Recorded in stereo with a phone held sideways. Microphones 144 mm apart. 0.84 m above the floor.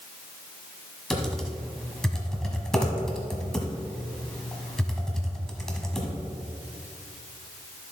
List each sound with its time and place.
1.1 s typing on a keyboard: 5° left (ahead or behind), 1.3 m